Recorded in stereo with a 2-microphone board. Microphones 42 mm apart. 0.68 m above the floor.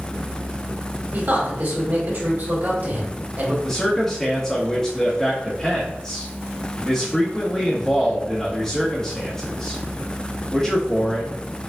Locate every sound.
1.1 s a man speaking: 50° right (ahead or behind), 2.0 m
3.6 s a man speaking: 15° left (ahead or behind), 1.2 m